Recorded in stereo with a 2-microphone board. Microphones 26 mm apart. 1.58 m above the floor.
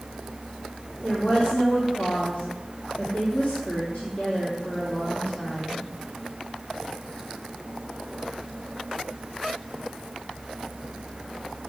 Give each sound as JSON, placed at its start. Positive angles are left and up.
{"t": 1.0, "sound": "a woman speaking", "side_deg": 50, "distance_m": 2.5}